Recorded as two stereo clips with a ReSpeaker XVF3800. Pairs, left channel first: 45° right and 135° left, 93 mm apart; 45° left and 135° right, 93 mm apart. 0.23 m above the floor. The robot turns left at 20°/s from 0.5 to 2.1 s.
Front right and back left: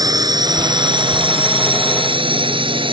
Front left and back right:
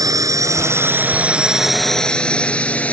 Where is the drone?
Straight behind; by 2.9 s 120° left.